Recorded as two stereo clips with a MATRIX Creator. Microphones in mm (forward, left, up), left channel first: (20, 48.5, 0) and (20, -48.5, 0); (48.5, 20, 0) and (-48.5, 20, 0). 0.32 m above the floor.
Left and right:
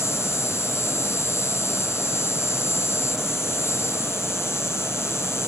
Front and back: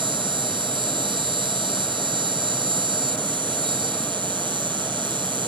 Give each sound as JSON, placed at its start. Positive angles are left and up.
{"t": 0.0, "sound": "an insect", "azimuth_deg": 150}